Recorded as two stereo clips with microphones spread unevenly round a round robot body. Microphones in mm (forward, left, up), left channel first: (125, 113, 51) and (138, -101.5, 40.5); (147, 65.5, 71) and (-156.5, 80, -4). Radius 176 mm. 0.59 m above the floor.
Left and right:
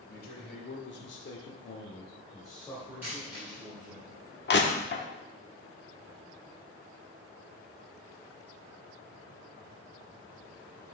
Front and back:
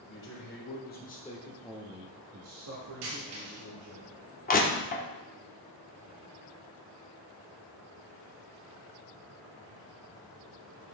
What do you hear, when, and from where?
0.1 s a man speaking: 50° left, 3 m; by 4.0 s 160° right, 3.5 m
3.0 s a dropped coin: 170° right, 4.5 m
4.5 s crushing: 65° left, 1.5 m